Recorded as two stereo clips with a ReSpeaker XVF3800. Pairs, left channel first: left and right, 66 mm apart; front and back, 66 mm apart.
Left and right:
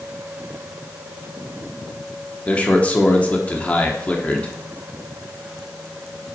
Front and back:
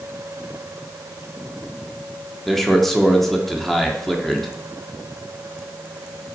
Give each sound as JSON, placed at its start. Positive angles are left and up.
{"t": 2.5, "sound": "a man speaking", "azimuth_deg": 75, "distance_m": 1.0}